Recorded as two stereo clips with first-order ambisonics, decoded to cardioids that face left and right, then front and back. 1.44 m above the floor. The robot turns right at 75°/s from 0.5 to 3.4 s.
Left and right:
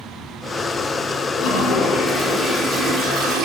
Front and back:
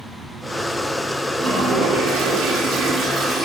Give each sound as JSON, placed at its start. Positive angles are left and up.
{"t": 1.4, "sound": "a toilet flushing", "azimuth_deg": 110, "distance_m": 1.0}